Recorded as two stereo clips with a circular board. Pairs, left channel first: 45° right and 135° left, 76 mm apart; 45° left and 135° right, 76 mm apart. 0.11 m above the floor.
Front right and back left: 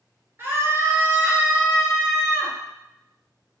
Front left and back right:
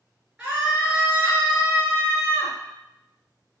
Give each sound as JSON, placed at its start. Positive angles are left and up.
{"t": 0.4, "sound": "a scream", "azimuth_deg": 155, "distance_m": 1.8}